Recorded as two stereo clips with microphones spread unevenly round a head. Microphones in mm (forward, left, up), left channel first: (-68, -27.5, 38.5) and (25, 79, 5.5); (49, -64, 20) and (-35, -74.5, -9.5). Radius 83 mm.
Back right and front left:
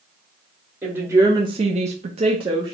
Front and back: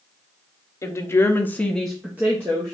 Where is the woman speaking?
35° right, 0.9 m; by 2.7 s 115° left, 0.9 m.